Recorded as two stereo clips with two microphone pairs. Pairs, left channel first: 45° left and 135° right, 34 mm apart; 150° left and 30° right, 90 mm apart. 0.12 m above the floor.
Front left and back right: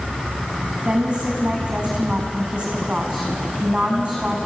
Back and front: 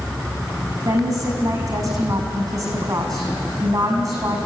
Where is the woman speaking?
80° right, 7.5 m.